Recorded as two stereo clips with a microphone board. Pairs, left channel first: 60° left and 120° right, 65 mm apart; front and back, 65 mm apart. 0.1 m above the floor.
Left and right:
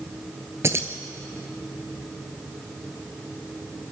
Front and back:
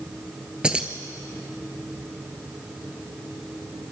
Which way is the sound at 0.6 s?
110° right.